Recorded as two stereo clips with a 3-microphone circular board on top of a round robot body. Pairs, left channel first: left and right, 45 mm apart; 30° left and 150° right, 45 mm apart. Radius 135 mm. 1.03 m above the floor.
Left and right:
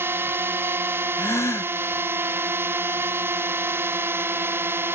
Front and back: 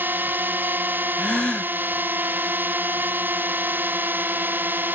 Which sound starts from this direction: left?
A gasp, at 1.2 s.